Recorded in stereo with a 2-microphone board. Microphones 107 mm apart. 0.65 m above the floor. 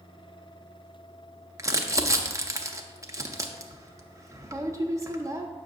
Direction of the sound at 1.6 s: 30° right (ahead or behind).